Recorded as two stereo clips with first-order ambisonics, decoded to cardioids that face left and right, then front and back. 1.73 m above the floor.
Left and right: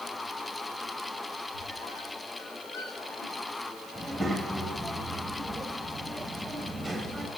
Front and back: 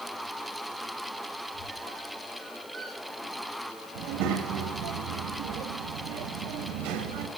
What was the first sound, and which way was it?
A squeak, 95° left.